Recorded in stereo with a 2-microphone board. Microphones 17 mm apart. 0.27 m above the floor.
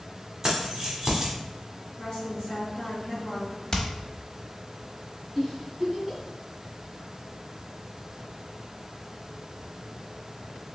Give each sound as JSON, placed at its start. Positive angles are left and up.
{"t": 0.4, "sound": "keys jangling", "side_deg": -30, "distance_m": 1.2}
{"t": 2.0, "sound": "a woman speaking", "side_deg": 45, "distance_m": 1.8}
{"t": 3.7, "sound": "hammering", "side_deg": 35, "distance_m": 0.8}
{"t": 5.3, "sound": "a giggle", "side_deg": -10, "distance_m": 1.5}